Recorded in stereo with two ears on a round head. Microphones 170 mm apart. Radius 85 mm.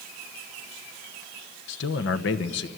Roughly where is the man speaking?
Left.